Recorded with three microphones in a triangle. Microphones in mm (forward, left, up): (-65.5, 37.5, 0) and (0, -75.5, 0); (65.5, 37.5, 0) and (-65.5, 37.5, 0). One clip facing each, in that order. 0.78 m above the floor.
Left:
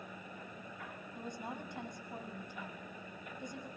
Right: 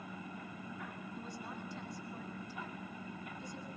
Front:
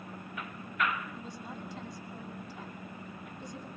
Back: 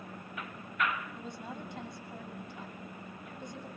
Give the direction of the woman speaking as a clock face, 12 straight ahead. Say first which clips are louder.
Left 5 dB, even; 7 o'clock.